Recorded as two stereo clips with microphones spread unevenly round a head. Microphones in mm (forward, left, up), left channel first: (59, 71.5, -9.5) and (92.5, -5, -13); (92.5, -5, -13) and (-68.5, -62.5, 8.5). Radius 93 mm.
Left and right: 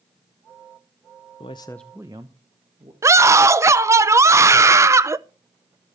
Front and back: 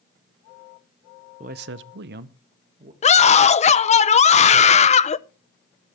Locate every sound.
1.4 s a man speaking: 145° left, 0.6 m; by 2.9 s 110° right, 1.7 m
3.0 s a scream: 20° right, 0.9 m